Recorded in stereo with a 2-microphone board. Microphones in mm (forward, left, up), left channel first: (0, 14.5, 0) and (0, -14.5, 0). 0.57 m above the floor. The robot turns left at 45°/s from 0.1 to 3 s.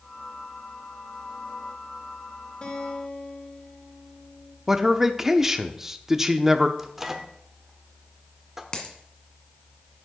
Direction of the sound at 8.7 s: 25° left (ahead or behind).